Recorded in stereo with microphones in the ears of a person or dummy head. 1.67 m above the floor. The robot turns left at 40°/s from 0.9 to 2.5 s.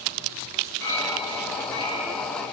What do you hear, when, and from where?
0.8 s a clink: 100° left, 5.5 m; by 2.1 s 50° left, 5.5 m